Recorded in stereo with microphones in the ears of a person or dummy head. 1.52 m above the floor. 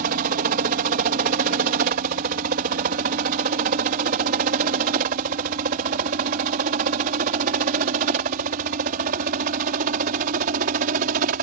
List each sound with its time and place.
0.0 s a helicopter: 40° right (ahead or behind)